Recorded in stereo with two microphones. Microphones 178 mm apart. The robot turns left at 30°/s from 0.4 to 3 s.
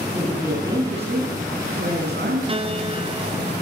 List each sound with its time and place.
0.1 s a woman speaking: 15° right, 7 m; by 2.4 s 75° right, 7 m
2.5 s a piano: 30° right (ahead or behind), 0.8 m